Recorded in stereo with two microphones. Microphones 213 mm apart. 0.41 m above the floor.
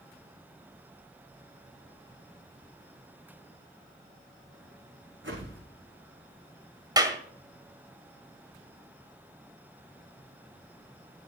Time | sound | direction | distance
5.2 | a whoosh | 65° right (ahead or behind) | 6.5 m
7.0 | a clap | 20° right (ahead or behind) | 1.8 m